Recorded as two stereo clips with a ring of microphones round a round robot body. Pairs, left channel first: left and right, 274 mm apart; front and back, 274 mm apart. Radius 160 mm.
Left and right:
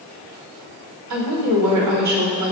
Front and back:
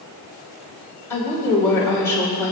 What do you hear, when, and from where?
1.1 s a woman speaking: 80° right, 3 m